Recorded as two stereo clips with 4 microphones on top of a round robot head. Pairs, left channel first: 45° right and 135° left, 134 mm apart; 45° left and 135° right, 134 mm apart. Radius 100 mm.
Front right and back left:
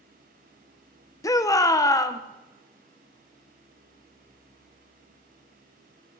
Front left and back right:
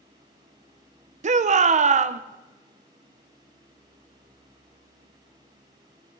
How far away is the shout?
About 0.6 m.